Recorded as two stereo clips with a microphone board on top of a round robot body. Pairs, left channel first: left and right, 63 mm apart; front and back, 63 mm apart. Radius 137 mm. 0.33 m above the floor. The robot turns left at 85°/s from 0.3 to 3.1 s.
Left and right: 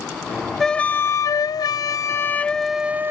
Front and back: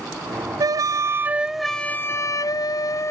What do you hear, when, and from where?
0.6 s a flute: 175° left; by 3.1 s 35° right